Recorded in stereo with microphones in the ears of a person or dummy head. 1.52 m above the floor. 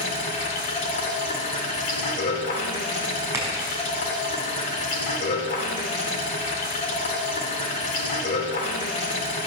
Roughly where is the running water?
Left.